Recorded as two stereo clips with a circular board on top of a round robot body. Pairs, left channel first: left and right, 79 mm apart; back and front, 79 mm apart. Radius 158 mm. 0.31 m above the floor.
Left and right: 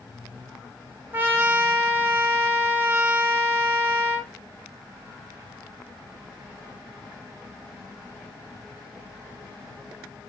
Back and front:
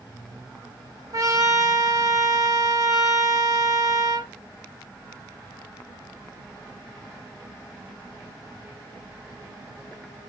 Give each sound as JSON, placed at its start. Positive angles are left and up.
{"t": 1.1, "sound": "a trumpet", "azimuth_deg": -30, "distance_m": 1.1}